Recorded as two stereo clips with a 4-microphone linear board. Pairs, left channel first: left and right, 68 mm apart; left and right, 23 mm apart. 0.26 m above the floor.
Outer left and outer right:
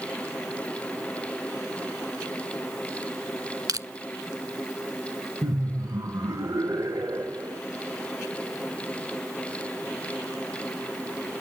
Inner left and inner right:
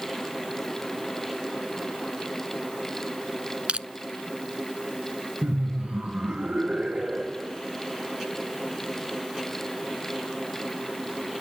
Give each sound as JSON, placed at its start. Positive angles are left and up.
{"t": 3.7, "sound": "crushing", "side_deg": -60, "distance_m": 0.7}
{"t": 5.4, "sound": "laughter", "side_deg": -60, "distance_m": 2.0}